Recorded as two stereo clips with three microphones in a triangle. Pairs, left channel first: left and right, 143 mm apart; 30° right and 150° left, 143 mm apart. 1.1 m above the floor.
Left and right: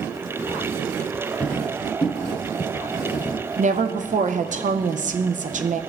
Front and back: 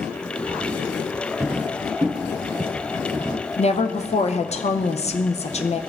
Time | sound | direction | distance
1.4 | footsteps | 160° left | 1.3 m
3.6 | a woman speaking | 70° right | 0.5 m